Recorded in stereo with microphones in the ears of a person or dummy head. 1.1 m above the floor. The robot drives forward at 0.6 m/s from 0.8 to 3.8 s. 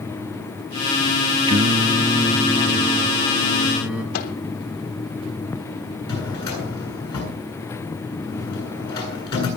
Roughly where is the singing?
Right.